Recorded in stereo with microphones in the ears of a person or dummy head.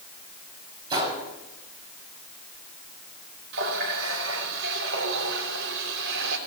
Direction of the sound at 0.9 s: 25° right (ahead or behind).